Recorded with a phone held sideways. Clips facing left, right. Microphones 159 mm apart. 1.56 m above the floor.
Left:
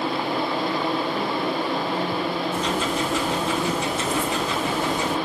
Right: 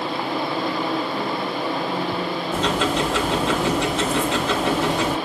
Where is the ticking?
85° right, 1.0 m.